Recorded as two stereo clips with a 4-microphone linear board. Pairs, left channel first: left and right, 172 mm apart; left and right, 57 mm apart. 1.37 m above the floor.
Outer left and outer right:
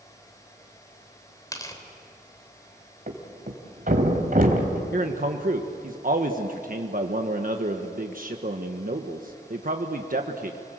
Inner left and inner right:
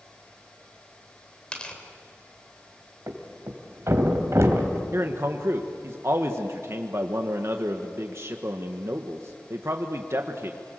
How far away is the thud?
About 3 m.